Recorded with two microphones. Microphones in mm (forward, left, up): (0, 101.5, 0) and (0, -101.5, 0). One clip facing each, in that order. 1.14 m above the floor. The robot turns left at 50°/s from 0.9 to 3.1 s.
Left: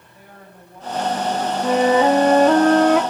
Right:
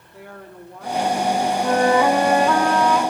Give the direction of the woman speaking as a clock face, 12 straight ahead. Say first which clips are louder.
Right 7 dB; 3 o'clock.